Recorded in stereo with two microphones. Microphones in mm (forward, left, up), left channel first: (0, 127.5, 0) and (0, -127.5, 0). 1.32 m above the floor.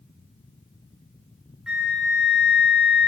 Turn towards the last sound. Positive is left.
turn(degrees=-5)  # may be behind; listen again after turning